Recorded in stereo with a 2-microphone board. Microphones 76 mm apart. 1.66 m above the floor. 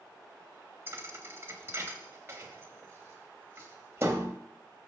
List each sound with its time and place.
0.9 s a thud: 35° right (ahead or behind), 2.5 m